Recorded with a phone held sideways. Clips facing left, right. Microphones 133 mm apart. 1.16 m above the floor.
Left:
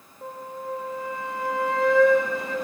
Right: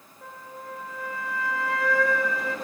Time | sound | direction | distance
0.2 | a flute | 20° left (ahead or behind) | 0.6 m